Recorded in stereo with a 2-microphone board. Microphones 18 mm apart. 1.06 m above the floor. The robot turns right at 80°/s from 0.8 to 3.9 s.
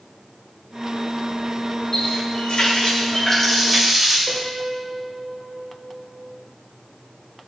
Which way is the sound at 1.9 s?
45° left.